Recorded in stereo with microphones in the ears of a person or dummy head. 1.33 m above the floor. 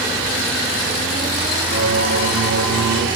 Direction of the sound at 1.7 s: 70° right (ahead or behind).